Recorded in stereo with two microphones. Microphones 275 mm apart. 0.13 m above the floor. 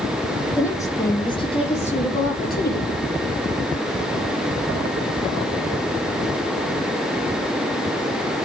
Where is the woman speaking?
10° left (ahead or behind), 5.5 m; by 2.9 s 40° left (ahead or behind), 4.5 m.